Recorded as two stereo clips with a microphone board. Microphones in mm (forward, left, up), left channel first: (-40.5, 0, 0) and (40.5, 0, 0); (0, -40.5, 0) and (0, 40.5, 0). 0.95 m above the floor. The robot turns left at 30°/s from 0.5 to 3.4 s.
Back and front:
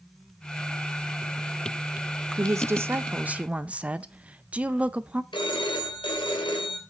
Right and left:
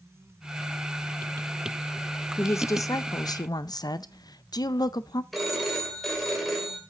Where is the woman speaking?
40° right, 0.6 m; by 5.2 s 70° right, 0.6 m.